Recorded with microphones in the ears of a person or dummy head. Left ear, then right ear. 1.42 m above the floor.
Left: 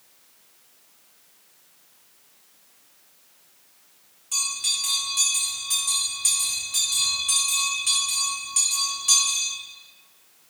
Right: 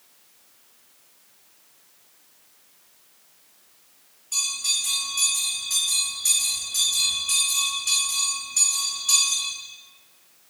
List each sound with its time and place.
4.3 s a bell: 40° left (ahead or behind), 1.5 m